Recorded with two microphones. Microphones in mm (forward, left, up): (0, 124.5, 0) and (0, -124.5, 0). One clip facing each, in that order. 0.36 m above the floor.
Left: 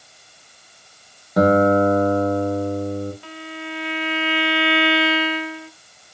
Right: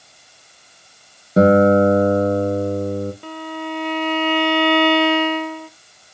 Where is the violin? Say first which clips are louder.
Right 5 dB; 50° right (ahead or behind), 0.6 m.